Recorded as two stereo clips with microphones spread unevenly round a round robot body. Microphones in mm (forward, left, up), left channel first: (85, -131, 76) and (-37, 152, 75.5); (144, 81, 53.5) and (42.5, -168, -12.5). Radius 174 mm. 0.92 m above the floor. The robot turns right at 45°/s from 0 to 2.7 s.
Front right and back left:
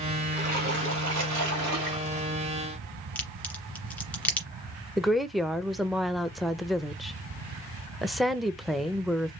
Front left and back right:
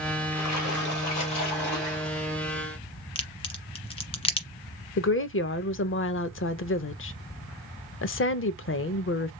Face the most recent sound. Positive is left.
turn(degrees=25)